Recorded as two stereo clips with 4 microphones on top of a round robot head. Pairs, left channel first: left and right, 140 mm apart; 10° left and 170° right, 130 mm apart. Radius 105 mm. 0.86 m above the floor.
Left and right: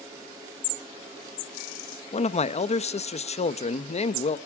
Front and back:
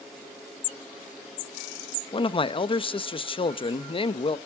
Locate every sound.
2.1 s a man speaking: 55° left, 0.9 m